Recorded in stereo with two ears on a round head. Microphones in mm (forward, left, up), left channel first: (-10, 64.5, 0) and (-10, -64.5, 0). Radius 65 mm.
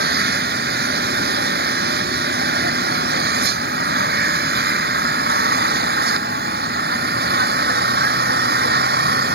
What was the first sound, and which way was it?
An engine running, 80° right.